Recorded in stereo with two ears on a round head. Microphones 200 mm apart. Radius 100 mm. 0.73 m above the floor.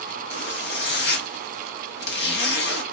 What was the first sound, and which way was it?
A zipper, 50° left (ahead or behind).